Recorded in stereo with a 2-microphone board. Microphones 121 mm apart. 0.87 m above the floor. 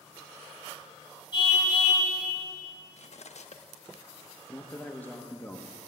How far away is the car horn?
About 4 m.